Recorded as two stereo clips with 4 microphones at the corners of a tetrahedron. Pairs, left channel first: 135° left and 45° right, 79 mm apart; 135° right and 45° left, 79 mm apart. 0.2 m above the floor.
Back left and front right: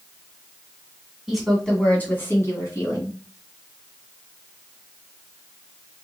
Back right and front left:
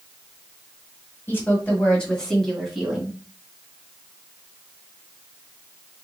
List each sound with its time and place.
1.3 s a woman speaking: 125° right, 1.6 m; by 3.2 s 125° left, 2 m